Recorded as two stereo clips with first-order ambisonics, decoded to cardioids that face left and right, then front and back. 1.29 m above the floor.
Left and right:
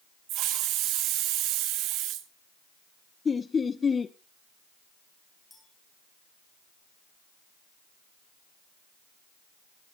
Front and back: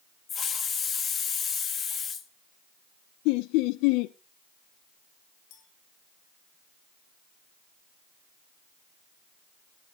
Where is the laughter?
15° left, 0.5 m.